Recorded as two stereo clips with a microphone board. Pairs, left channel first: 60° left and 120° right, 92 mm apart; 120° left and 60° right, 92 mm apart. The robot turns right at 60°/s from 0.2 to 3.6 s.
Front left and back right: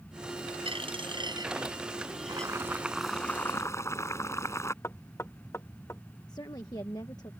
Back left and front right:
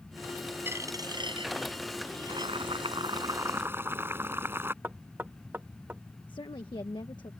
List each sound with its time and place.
0.7 s a dropped coin: 125° right; by 2.8 s 5° left
2.3 s boiling: 75° right; by 4.7 s 5° left
4.8 s knocking: 5° left
6.3 s a woman speaking: 100° left